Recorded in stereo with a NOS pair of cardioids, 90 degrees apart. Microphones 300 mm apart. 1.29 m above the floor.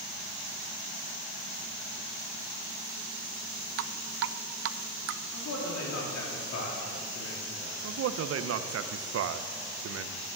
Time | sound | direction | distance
3.8 | dripping | 55° right | 0.5 m
5.3 | a man speaking | 60° left | 3.5 m
7.8 | a man speaking | 50° right | 0.8 m